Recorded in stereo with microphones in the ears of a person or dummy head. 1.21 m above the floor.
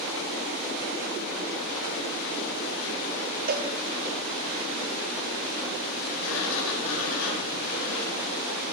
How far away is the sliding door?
About 3.5 m.